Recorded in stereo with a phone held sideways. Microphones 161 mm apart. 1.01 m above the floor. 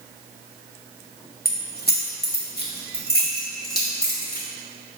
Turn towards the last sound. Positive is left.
turn(degrees=65)  # may be behind; listen again after turning